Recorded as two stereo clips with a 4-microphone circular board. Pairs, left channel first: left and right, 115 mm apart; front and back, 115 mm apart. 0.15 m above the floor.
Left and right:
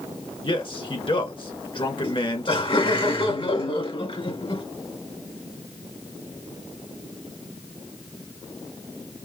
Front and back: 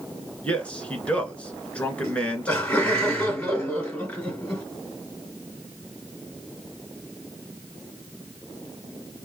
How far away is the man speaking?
About 1.6 m.